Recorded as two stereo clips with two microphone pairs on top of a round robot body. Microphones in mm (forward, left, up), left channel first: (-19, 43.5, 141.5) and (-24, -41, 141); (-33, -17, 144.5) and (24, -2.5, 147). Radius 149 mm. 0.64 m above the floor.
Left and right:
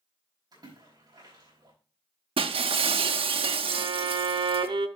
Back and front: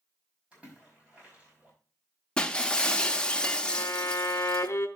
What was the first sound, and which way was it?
A splash, 55° right.